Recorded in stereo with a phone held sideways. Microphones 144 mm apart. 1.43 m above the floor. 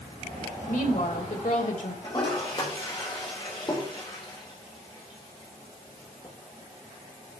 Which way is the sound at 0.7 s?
65° left (ahead or behind).